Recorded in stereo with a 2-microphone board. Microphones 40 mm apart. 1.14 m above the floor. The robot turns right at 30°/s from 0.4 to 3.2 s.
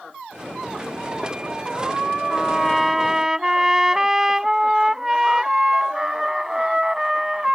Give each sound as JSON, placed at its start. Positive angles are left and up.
{"t": 2.3, "sound": "a trumpet", "side_deg": 10}